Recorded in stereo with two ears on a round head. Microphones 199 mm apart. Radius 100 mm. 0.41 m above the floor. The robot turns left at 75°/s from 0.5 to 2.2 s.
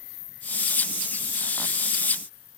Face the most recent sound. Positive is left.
No sound to turn to.